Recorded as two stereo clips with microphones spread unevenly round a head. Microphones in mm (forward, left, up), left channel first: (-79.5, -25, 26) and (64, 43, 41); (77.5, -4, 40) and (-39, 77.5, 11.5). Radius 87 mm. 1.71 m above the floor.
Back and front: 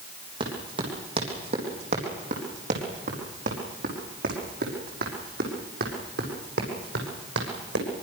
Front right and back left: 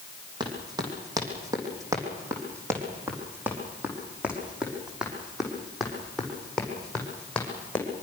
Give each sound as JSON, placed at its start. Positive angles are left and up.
{"t": 0.4, "sound": "running footsteps", "azimuth_deg": 80, "distance_m": 5.5}